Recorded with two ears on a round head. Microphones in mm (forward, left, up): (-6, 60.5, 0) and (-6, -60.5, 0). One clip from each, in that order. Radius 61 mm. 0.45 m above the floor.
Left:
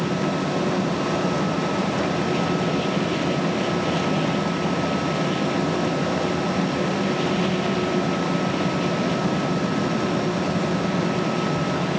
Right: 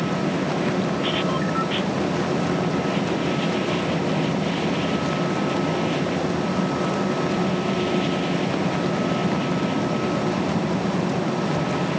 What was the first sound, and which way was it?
Only background noise.